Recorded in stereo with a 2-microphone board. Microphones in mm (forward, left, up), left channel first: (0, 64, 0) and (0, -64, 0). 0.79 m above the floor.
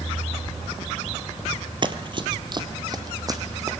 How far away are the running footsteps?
About 0.9 m.